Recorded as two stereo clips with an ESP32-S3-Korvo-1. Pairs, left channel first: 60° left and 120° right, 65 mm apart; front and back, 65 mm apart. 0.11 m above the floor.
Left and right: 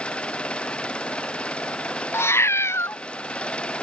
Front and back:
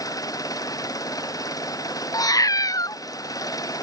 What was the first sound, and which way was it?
An engine running, 15° right.